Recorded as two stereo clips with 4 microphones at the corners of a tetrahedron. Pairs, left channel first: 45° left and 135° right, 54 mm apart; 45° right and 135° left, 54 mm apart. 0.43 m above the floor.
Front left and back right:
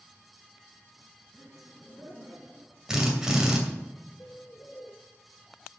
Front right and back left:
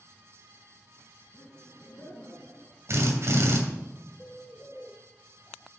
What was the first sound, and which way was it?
Laughter, 30° right.